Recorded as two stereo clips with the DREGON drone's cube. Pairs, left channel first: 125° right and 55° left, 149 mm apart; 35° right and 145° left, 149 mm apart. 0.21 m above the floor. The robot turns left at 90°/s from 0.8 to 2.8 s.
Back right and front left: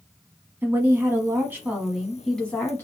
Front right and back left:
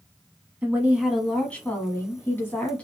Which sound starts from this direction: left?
A woman speaking, at 0.6 s.